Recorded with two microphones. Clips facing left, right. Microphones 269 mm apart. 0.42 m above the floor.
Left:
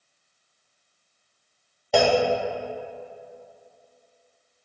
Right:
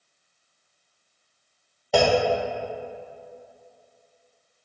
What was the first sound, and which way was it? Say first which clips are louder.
A clunk: even; centre (ahead or behind).